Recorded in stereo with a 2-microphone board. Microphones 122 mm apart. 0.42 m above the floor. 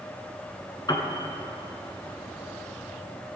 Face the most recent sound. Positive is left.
turn(degrees=35)  # may be behind; listen again after turning